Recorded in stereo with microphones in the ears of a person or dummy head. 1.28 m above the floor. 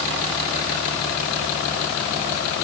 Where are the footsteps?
No footsteps in this recording.